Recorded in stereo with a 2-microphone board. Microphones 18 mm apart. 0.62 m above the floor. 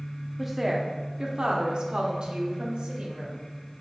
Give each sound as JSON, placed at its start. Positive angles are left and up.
{"t": 0.4, "sound": "a woman speaking", "side_deg": -10, "distance_m": 0.8}